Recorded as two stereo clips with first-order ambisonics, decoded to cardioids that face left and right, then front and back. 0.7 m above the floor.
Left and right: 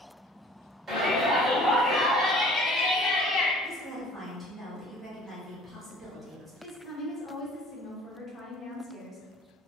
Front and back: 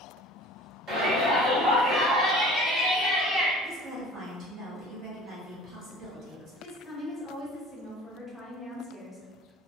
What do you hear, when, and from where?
0.9 s a shout: 145° right, 1.4 m; by 3.5 s 105° left, 1.3 m
3.6 s a woman speaking: 170° right, 0.9 m
6.6 s a woman speaking: 75° left, 0.7 m